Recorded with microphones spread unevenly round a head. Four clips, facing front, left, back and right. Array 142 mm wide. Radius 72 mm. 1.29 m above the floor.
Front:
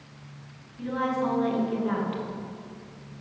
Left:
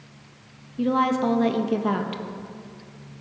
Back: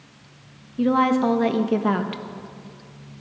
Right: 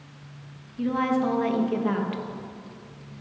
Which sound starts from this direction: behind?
A woman speaking, at 0.8 s.